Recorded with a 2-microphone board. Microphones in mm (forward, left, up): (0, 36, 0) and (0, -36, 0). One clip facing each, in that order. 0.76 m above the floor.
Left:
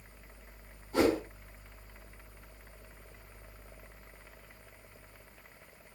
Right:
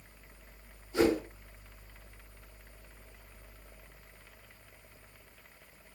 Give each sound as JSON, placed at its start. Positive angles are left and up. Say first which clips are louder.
{"t": 0.9, "sound": "a whoosh", "louder": "even", "side_deg": 60, "distance_m": 5.0}